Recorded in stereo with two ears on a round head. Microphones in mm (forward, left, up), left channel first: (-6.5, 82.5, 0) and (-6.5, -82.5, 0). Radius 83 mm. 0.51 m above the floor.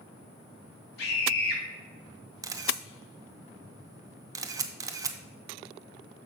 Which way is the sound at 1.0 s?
60° left (ahead or behind).